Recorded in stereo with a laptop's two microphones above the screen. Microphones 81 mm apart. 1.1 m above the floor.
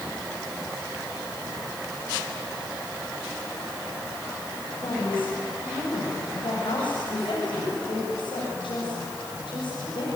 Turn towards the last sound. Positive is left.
turn(degrees=70)  # may be behind; listen again after turning